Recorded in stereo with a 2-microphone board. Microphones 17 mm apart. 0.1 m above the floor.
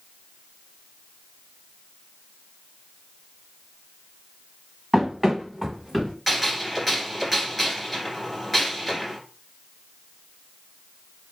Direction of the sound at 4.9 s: 15° right (ahead or behind).